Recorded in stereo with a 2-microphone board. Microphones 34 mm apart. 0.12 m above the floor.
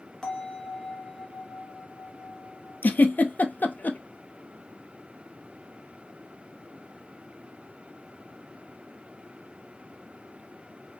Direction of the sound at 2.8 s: 65° left (ahead or behind).